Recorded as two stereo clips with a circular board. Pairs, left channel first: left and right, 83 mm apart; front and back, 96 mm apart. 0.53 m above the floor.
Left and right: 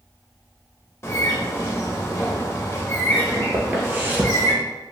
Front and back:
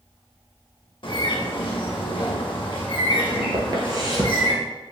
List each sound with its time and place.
1.0 s a bird: 30° left, 0.6 m
3.5 s footsteps: 150° right, 0.7 m